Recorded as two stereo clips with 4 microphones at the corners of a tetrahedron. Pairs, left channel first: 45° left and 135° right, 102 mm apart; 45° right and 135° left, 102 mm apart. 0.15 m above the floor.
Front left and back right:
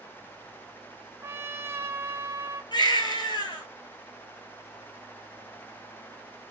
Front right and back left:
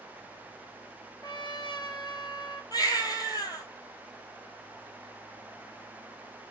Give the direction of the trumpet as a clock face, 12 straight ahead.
2 o'clock.